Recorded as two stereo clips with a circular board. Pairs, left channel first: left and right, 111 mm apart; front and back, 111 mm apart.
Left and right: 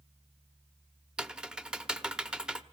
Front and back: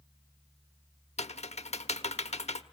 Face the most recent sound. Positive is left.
turn(degrees=-5)